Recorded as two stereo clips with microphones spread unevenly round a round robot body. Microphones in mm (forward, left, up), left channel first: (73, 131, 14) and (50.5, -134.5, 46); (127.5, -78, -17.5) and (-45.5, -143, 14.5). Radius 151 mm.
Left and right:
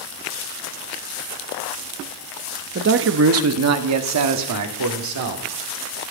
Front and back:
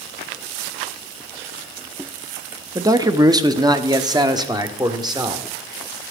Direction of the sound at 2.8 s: 85° right.